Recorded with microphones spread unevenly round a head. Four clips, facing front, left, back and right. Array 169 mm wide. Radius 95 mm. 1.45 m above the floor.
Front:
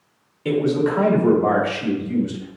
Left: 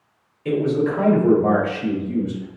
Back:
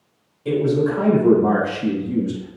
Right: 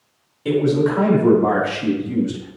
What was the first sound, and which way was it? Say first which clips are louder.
A man speaking: right 3 dB, even; 25° right.